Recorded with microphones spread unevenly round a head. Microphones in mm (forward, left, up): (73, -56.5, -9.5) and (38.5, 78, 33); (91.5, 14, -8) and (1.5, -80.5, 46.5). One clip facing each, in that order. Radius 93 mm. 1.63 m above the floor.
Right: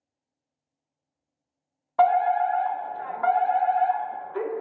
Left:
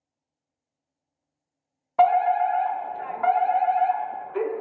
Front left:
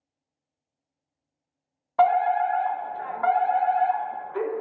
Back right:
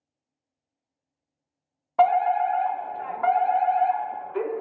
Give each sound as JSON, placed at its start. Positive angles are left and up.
{"t": 2.0, "sound": "a fire alarm", "azimuth_deg": -5, "distance_m": 0.5}